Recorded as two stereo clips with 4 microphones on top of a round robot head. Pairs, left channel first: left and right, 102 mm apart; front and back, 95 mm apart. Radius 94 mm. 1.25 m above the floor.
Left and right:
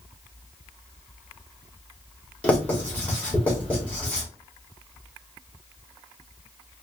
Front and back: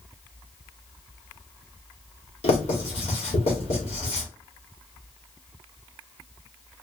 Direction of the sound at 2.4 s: 10° left.